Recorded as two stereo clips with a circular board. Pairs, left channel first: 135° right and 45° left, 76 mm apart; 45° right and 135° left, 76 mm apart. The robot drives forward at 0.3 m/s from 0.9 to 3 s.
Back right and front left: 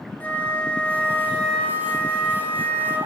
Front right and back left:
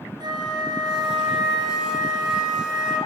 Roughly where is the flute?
Behind left.